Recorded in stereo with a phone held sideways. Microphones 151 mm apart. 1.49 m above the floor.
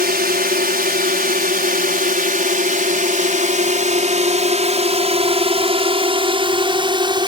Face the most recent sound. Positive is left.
turn(degrees=-30)  # may be behind; listen again after turning